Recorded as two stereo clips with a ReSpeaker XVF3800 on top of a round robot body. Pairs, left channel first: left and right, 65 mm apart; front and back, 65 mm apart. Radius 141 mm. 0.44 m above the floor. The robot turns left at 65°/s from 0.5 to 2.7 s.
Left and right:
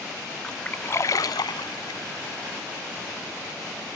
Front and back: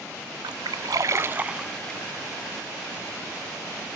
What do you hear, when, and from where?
0.4 s a splash: 170° left; by 2.0 s 75° left